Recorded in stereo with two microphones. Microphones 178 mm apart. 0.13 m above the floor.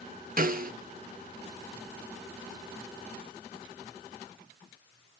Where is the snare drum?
55° right (ahead or behind), 0.7 m.